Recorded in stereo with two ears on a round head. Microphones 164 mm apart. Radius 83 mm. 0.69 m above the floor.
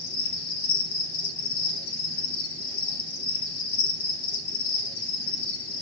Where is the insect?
80° left, 2.5 m.